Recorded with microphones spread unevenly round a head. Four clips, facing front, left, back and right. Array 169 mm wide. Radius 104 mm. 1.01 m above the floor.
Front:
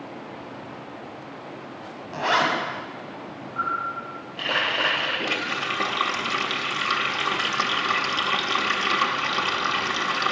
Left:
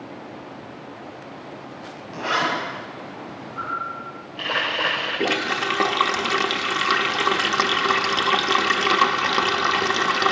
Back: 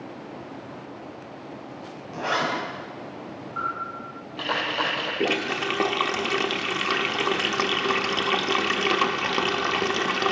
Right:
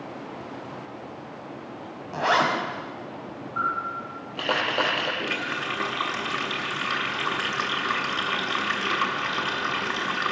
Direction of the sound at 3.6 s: 85° right.